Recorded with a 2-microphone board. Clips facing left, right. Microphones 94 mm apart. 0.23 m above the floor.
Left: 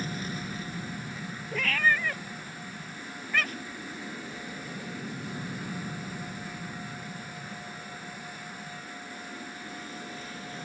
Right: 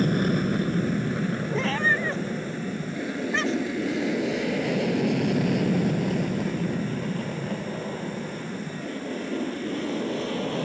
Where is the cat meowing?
25° right (ahead or behind).